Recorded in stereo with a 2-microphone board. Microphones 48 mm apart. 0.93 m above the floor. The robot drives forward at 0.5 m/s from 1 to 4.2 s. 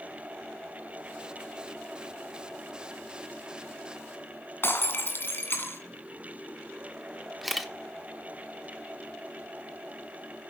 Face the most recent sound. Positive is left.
turn(degrees=0)  # may be behind; listen again after turning